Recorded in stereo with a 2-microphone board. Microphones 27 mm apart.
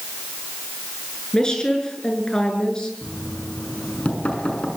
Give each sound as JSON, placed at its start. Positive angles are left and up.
{"t": 1.3, "sound": "a woman speaking", "side_deg": 25, "distance_m": 7.5}
{"t": 3.0, "sound": "knocking", "side_deg": 50, "distance_m": 6.5}